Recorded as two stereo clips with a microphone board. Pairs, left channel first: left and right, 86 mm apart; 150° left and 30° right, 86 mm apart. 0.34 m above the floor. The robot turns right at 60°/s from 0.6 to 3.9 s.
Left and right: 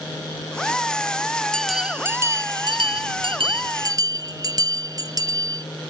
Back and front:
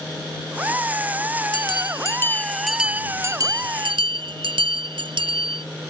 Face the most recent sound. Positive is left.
turn(degrees=-45)